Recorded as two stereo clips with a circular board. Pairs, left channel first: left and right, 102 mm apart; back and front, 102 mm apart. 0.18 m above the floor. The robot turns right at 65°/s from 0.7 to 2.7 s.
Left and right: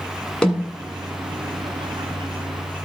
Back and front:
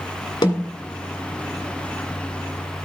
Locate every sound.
0.4 s a snare drum: 170° left, 1.4 m